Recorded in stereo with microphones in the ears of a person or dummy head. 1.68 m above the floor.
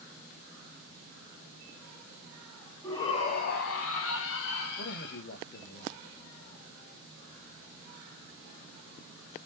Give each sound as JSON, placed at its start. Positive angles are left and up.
{"t": 2.8, "sound": "a shout", "side_deg": 15, "distance_m": 0.6}
{"t": 4.8, "sound": "a man speaking", "side_deg": 55, "distance_m": 0.8}